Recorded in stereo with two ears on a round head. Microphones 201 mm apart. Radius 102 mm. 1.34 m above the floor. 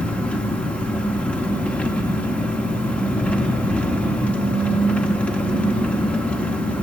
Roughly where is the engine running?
Centre.